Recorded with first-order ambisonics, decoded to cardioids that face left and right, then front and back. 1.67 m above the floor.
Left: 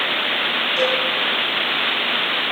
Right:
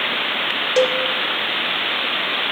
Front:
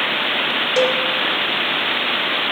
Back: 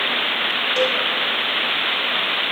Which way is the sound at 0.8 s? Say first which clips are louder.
Right 4 dB, front 4 dB; 65° right.